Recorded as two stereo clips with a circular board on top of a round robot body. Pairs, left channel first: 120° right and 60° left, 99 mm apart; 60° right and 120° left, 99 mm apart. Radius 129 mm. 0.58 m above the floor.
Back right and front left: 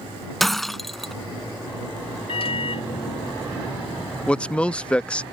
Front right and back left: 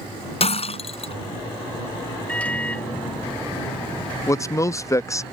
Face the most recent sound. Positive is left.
turn(degrees=-50)